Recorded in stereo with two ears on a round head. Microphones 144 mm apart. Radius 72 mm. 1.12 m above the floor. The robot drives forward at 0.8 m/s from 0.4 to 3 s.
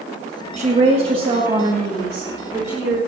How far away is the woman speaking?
About 1.3 m.